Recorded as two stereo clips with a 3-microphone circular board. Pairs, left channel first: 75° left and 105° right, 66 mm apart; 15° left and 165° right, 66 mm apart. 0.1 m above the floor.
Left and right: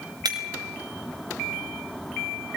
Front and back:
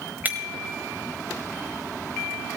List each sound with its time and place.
0.2 s breaking glass: 100° right, 3.5 m